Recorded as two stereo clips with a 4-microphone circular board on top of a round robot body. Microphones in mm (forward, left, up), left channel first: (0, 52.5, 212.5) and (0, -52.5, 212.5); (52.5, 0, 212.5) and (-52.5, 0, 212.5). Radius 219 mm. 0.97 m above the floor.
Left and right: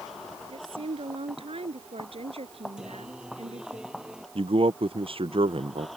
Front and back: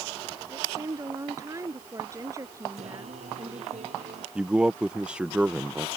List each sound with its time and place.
0.5 s a woman speaking: 120° right
2.8 s singing: 175° right
4.3 s a man speaking: 100° right